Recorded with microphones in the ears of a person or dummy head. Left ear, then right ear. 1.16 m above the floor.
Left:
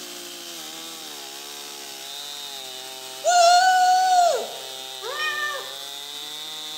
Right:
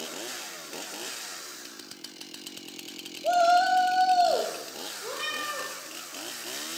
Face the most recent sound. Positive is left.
turn(degrees=60)  # may be behind; listen again after turning